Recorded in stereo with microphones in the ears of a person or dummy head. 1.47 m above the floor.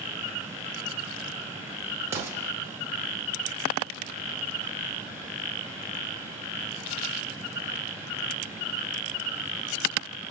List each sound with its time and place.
2.1 s an explosion: 15° right (ahead or behind), 0.7 m